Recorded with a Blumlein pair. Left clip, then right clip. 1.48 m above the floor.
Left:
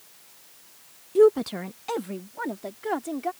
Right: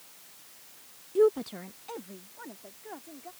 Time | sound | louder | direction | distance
1.1 | a woman speaking | left 6 dB | 15° left | ?